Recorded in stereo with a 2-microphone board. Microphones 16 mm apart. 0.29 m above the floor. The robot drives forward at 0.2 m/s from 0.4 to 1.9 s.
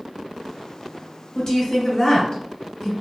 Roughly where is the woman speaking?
Left.